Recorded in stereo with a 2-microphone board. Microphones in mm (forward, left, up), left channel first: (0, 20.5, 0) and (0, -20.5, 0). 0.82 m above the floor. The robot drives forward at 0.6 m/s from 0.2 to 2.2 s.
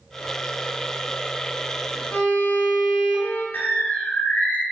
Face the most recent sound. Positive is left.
turn(degrees=50)  # may be behind; listen again after turning